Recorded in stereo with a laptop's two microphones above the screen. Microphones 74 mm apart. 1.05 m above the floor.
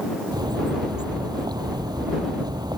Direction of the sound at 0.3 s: 65° right (ahead or behind).